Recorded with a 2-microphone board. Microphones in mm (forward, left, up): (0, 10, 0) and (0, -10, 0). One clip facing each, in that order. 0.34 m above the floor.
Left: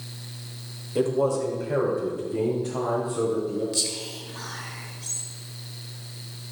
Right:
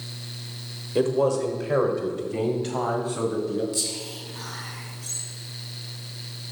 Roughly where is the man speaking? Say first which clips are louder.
Right 1 dB; right.